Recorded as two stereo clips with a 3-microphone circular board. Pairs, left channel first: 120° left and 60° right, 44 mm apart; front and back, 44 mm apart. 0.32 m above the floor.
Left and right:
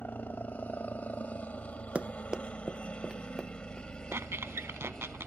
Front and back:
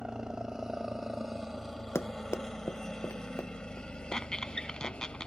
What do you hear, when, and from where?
0.0 s a helicopter: 110° left; by 5.3 s 45° left
1.9 s running footsteps: 5° right; by 5.0 s 30° left
4.1 s a squeak: 75° right